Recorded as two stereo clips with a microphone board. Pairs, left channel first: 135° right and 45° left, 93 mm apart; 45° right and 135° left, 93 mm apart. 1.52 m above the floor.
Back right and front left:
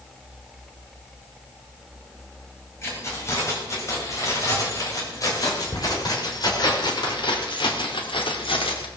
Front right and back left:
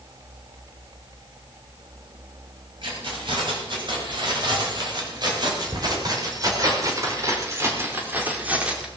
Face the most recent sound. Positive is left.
turn(degrees=-145)